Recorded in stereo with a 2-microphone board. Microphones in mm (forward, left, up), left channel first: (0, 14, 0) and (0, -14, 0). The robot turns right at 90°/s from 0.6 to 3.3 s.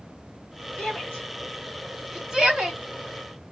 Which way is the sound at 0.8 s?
50° left (ahead or behind).